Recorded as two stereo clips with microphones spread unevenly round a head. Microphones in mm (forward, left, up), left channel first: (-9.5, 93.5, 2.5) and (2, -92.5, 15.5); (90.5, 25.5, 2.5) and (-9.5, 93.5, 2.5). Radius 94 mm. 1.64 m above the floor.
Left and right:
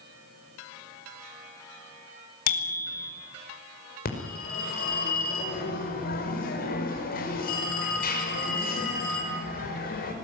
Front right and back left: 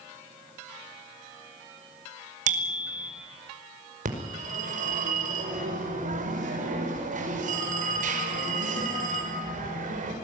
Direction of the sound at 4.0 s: 140° left.